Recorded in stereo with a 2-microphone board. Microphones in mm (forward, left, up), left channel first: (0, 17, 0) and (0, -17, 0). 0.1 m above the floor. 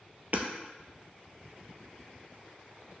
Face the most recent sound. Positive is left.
turn(degrees=-50)  # may be behind; listen again after turning